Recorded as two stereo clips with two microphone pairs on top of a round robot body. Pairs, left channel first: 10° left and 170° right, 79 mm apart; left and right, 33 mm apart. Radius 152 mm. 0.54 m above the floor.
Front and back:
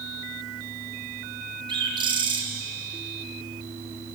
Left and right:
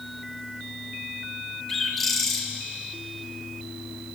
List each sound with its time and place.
1.7 s a bird: 175° left, 3.5 m